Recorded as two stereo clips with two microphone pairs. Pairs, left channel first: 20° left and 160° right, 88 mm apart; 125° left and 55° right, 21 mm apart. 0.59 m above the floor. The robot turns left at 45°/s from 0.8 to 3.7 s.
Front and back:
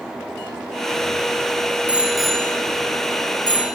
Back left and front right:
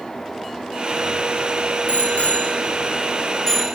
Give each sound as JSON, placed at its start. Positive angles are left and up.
{"t": 1.9, "sound": "a bicycle bell", "azimuth_deg": 125, "distance_m": 5.5}